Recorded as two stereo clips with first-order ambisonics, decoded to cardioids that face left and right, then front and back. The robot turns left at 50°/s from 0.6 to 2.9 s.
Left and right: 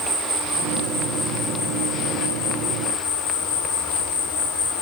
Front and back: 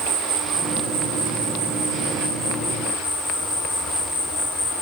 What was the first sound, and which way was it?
An insect, 160° right.